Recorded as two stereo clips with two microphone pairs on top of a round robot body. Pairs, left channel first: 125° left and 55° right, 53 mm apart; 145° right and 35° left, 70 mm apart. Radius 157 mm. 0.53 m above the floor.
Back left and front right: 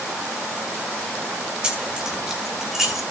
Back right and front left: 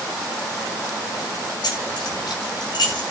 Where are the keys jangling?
125° right, 3.5 m; by 3.0 s 140° right, 4 m.